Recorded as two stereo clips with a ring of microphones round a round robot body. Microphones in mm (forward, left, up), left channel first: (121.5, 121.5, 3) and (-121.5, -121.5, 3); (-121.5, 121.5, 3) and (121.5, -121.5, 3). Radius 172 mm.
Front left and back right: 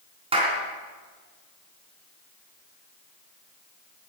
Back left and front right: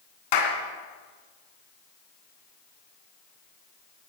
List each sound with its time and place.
0.3 s a clap: 150° left, 3.5 m